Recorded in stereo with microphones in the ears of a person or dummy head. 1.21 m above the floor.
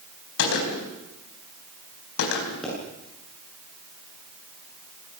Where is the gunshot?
80° left, 4.5 m.